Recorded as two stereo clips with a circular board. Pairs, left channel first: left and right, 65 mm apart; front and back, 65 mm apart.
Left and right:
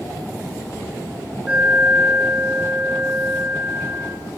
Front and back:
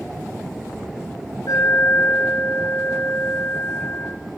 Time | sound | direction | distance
1.5 | an alarm | 20° right | 9 m